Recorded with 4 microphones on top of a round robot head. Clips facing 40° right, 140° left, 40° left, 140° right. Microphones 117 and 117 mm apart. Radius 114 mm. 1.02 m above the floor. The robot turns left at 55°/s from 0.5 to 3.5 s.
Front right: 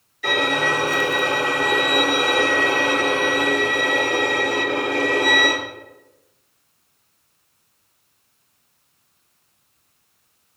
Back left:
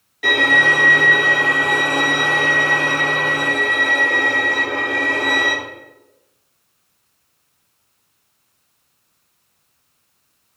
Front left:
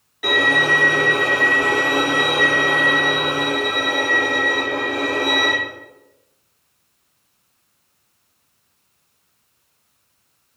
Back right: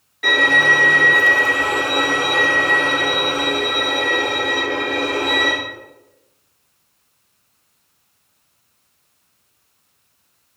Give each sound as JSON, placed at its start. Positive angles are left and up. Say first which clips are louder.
{"t": 0.2, "sound": "a violin", "louder": "back left 3 dB, back right 1 dB", "azimuth_deg": 125, "distance_m": 1.9}